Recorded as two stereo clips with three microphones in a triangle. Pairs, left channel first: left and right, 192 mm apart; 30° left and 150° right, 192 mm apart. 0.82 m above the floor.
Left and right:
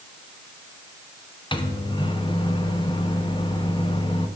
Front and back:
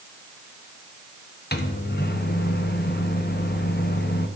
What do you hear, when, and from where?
1.5 s a microwave: 30° left, 0.9 m